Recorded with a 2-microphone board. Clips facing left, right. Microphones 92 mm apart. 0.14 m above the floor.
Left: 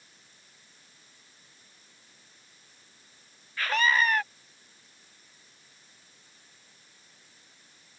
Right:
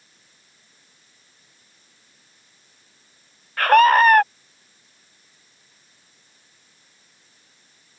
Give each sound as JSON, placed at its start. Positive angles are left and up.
{"t": 3.6, "sound": "a scream", "side_deg": -60}